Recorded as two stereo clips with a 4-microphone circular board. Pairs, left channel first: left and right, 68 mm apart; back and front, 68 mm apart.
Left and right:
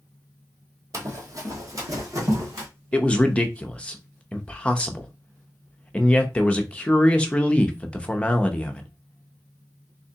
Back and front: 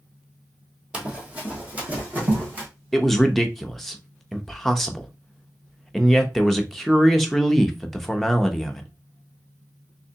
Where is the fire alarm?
No fire alarm in this recording.